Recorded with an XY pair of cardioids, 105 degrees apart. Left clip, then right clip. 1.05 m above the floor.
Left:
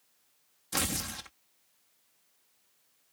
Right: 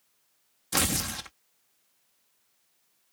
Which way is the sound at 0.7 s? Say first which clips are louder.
Right 5 dB; 35° right.